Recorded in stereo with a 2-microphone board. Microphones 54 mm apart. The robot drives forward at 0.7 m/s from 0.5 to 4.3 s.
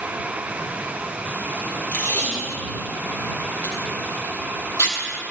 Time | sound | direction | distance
1.9 | tape being pulled | 60° left (ahead or behind) | 4 m